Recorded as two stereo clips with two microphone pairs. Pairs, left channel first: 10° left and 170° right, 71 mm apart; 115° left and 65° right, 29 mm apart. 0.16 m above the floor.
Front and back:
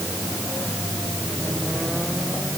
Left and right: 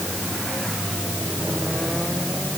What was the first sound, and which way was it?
Only background noise.